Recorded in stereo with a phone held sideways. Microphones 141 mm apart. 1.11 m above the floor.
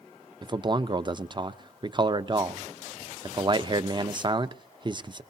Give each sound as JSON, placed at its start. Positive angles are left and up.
{"t": 0.4, "sound": "a man speaking", "side_deg": -35, "distance_m": 0.7}